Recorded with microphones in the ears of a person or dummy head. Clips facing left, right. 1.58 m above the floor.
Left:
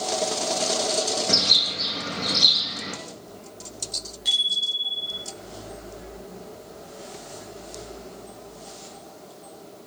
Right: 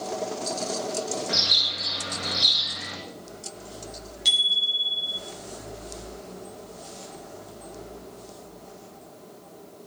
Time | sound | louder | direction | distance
1.3 | a bird | left 4 dB | 50° left (ahead or behind) | 1.9 m
4.2 | a bicycle bell | right 1 dB | 40° right (ahead or behind) | 8 m